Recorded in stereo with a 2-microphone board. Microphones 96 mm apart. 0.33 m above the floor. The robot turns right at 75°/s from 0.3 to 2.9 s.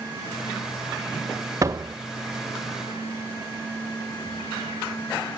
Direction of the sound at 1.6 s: 35° right (ahead or behind).